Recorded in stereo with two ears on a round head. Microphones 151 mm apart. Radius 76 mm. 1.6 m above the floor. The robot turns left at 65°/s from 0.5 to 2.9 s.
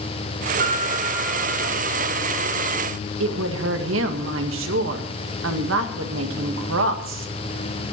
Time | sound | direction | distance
0.6 | a piano | 125° right | 3.5 m
3.2 | a woman speaking | 85° right | 1.9 m